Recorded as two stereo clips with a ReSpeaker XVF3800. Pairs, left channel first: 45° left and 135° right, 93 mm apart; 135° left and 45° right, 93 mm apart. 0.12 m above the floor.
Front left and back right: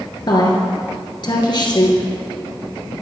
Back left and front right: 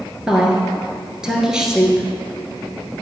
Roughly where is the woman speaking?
Ahead left.